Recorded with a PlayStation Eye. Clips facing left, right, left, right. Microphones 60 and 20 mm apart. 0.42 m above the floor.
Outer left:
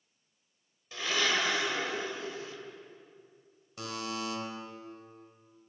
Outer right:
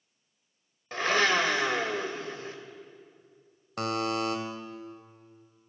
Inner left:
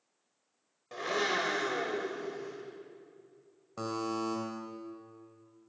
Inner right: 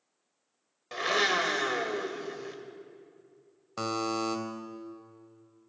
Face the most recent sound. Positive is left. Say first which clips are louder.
# outer right 8 dB, inner right 4 dB
turn(degrees=-60)  # may be behind; listen again after turning